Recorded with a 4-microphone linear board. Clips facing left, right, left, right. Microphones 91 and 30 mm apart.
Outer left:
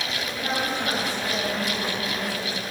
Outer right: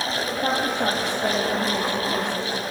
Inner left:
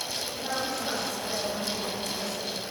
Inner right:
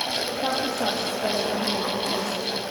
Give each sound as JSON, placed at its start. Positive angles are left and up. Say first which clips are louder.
{"t": 0.3, "sound": "a woman speaking", "louder": "outer right 3 dB, inner right 5 dB", "side_deg": -60, "distance_m": 4.5}